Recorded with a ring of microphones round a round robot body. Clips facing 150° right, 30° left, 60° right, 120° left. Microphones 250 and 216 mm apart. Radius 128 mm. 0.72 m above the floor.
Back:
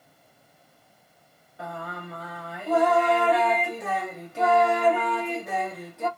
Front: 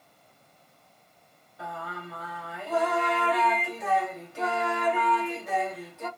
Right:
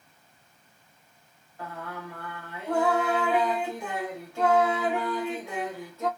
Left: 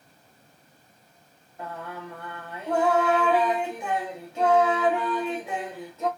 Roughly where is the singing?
Behind.